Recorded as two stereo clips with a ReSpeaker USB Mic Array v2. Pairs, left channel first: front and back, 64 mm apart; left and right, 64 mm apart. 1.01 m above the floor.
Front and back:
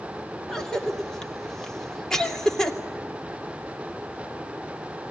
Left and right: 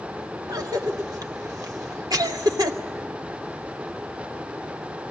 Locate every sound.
0.5 s a cough: 80° right, 2.5 m